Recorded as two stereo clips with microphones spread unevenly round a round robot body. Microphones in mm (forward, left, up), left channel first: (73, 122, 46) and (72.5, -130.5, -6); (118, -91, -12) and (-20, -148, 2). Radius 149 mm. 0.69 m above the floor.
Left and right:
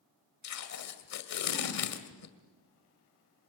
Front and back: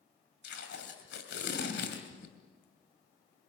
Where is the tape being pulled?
65° left, 2 m.